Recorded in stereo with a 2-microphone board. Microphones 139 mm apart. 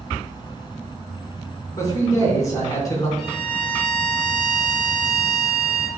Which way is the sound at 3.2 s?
5° left (ahead or behind).